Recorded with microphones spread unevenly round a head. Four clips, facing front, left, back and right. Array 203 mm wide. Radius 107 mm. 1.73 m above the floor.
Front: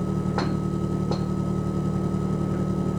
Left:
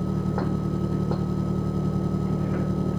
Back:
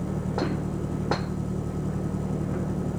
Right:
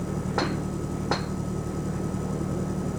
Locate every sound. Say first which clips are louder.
0.0 s an engine running: left 1 dB, front 2 dB; 20° left